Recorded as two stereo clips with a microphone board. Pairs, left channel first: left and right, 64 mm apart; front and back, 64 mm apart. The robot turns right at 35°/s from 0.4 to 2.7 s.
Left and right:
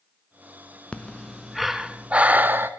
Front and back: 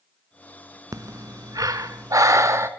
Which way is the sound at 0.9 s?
160° left.